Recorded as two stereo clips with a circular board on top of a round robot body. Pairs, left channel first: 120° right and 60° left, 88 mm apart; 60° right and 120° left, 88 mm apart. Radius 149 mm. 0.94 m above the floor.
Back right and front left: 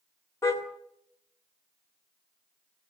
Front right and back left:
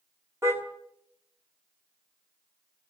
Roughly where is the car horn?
Behind.